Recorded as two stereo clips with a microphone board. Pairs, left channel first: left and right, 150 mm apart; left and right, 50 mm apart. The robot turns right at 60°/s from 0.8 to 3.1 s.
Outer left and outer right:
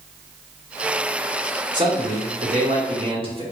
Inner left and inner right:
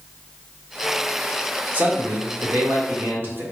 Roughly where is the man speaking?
Behind right.